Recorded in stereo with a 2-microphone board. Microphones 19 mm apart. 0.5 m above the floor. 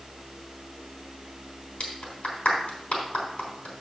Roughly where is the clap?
Left.